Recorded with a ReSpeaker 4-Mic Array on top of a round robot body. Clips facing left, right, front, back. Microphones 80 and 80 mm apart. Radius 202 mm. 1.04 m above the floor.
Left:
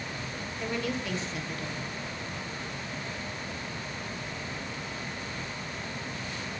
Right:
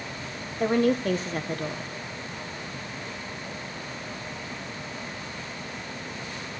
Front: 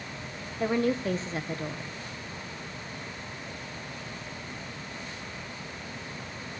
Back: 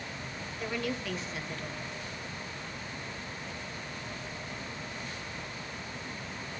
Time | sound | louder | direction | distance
0.6 | a woman speaking | right 11 dB, front 9 dB | 55° right | 1.3 m